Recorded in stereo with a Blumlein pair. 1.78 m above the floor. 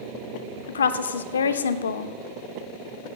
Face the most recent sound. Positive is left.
turn(degrees=70)